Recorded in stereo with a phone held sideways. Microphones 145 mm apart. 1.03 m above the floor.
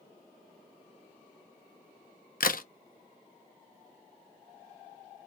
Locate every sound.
2.4 s a crack: 65° left (ahead or behind), 0.7 m